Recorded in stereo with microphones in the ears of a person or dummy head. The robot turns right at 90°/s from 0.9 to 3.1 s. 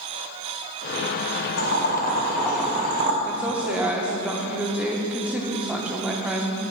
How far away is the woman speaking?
About 0.8 m.